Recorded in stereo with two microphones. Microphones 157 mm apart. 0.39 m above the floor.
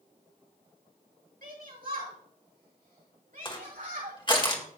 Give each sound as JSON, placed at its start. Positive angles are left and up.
{"t": 1.4, "sound": "a shout", "side_deg": -70, "distance_m": 5.0}
{"t": 3.5, "sound": "crushing", "side_deg": 35, "distance_m": 1.5}